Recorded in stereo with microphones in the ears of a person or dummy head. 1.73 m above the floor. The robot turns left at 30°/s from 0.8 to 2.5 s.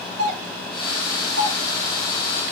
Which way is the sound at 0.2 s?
75° right (ahead or behind).